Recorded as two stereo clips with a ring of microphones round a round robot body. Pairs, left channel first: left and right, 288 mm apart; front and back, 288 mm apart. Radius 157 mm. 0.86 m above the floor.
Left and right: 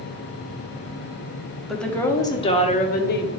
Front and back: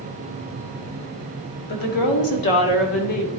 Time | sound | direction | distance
1.7 | a woman speaking | straight ahead | 1.6 m